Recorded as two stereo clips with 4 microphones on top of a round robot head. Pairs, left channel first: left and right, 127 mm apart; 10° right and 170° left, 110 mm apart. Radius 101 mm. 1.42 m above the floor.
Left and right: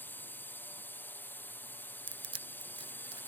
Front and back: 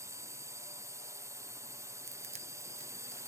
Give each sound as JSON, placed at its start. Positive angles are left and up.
{"t": 0.0, "sound": "a drone", "azimuth_deg": 150}
{"t": 2.1, "sound": "crushing", "azimuth_deg": -140}